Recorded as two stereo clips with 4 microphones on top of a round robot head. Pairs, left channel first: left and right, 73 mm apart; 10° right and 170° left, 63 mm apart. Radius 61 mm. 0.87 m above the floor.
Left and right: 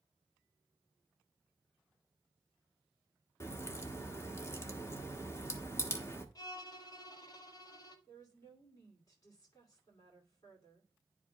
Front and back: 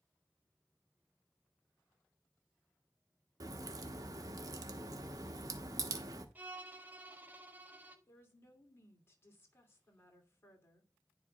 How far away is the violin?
About 1.1 m.